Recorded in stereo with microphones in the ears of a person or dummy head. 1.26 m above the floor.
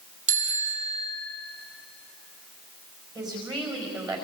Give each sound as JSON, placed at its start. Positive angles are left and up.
{"t": 0.3, "sound": "a bicycle bell", "side_deg": -35, "distance_m": 3.5}
{"t": 3.1, "sound": "a woman speaking", "side_deg": -15, "distance_m": 4.5}